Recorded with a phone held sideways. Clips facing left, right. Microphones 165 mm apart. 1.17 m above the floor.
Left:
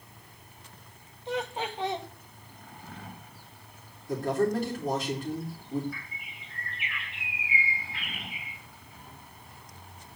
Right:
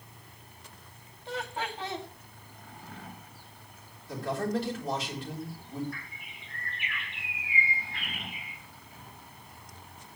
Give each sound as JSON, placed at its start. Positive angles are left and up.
{"t": 1.3, "sound": "laughter", "side_deg": 20, "distance_m": 1.9}
{"t": 4.1, "sound": "a man speaking", "side_deg": 50, "distance_m": 4.0}
{"t": 5.9, "sound": "a bird", "side_deg": 5, "distance_m": 2.5}